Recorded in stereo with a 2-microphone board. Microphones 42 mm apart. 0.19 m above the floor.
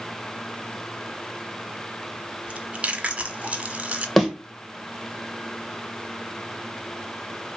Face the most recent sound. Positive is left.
turn(degrees=5)  # may be behind; listen again after turning